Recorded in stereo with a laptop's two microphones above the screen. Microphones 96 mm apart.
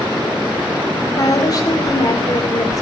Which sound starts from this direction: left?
A woman speaking, at 1.2 s.